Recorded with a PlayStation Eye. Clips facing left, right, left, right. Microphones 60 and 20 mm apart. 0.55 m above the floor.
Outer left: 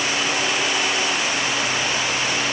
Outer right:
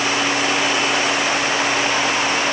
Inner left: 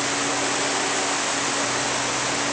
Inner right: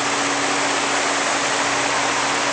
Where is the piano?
I don't hear a piano.